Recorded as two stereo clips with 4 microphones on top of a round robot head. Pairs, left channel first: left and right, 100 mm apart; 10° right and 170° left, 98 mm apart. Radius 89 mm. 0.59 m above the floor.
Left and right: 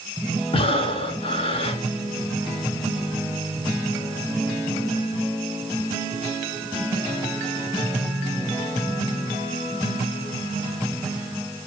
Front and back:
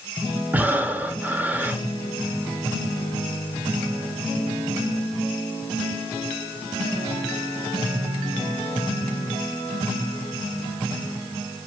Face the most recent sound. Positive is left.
turn(degrees=100)